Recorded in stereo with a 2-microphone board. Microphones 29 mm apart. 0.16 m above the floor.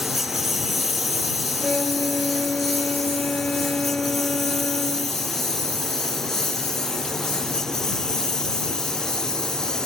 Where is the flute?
45° left (ahead or behind).